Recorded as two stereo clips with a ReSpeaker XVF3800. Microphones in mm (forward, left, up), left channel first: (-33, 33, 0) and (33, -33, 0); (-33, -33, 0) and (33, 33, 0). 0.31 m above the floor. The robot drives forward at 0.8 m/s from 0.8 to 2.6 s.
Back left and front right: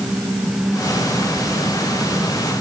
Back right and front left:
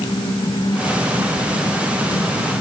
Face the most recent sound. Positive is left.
No sound to turn to.